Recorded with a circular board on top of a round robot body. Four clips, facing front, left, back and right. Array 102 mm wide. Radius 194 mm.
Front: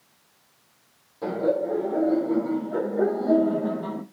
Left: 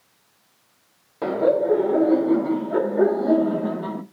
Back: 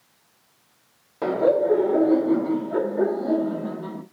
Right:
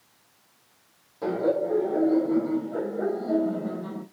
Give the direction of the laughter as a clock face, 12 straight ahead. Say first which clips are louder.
Left 5 dB, back 5 dB; 7 o'clock.